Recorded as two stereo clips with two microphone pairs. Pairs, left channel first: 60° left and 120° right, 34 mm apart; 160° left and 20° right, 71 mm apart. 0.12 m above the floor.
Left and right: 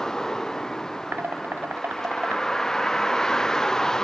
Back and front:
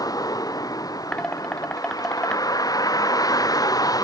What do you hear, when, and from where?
0.0 s a vehicle: 130° left
1.1 s dishes clattering: 120° right